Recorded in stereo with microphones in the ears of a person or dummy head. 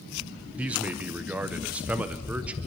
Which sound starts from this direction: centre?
A man speaking, at 0.6 s.